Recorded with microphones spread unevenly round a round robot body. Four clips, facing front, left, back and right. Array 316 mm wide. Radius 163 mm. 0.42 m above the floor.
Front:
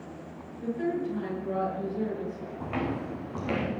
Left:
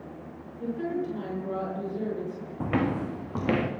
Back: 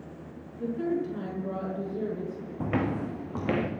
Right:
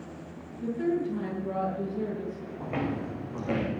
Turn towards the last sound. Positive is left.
turn(degrees=110)